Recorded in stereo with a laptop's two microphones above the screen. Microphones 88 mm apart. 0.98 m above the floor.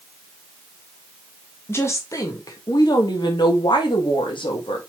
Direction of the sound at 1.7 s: 30° left (ahead or behind).